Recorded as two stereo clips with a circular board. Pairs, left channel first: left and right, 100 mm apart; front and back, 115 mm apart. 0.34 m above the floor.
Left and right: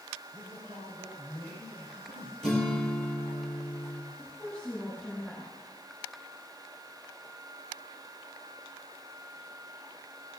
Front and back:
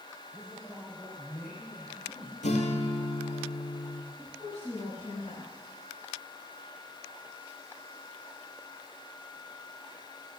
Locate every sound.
0.3 s a man speaking: 70° right, 4 m
2.4 s a guitar: 5° left, 3 m
4.2 s a woman speaking: 10° left, 5 m